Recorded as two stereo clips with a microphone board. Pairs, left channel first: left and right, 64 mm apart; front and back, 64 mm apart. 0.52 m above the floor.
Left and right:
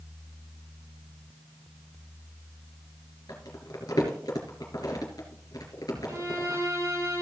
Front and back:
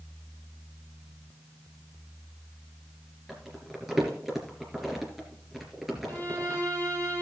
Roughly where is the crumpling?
Left.